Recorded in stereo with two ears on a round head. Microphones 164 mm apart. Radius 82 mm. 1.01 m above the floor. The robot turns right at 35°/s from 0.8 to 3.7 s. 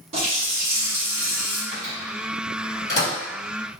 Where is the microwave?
25° right (ahead or behind), 1.6 m; by 3.1 s 25° left (ahead or behind), 1.6 m.